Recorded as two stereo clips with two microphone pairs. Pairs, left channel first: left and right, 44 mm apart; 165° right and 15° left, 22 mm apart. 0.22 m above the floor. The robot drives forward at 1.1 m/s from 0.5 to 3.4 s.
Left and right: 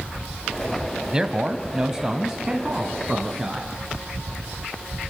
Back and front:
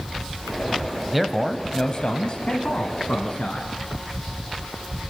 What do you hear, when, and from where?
1.1 s a man speaking: 40° right, 1.1 m; by 3.7 s 175° right, 2.5 m